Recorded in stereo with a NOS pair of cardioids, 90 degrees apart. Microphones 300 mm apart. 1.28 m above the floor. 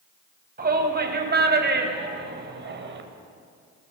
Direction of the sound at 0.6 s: 30° right.